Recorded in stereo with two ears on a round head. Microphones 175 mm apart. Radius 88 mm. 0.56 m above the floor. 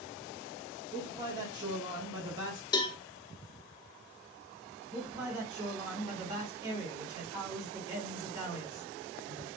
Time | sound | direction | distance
0.9 | a man speaking | 20° right (ahead or behind) | 1.0 m
2.7 | a cowbell | 20° left (ahead or behind) | 0.5 m
4.9 | a man speaking | 25° right (ahead or behind) | 2 m